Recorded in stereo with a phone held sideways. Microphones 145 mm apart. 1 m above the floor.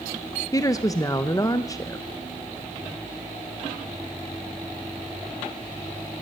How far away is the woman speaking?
About 0.5 m.